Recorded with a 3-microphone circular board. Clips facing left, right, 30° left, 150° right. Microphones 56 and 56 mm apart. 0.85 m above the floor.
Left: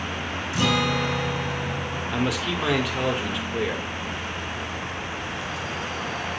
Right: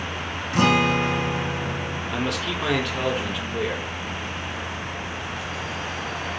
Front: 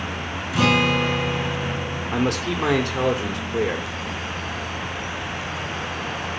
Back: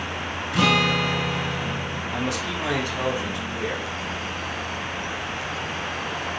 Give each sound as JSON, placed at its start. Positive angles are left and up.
{"t": 0.5, "sound": "a guitar", "azimuth_deg": -55, "distance_m": 1.7}
{"t": 2.1, "sound": "a man speaking", "azimuth_deg": 0, "distance_m": 2.0}